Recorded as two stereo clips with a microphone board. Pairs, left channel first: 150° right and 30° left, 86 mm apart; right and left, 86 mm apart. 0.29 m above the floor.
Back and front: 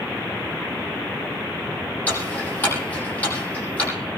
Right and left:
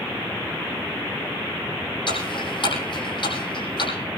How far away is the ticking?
About 8 m.